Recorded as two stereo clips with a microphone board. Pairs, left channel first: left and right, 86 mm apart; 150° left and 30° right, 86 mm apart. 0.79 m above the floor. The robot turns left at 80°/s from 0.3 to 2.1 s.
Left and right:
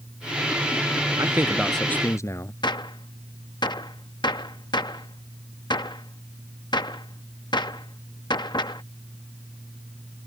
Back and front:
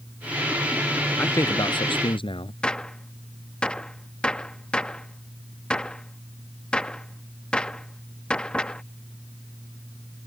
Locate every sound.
1.2 s a man speaking: 140° right; by 2.5 s 145° left
2.6 s a gunshot: 70° left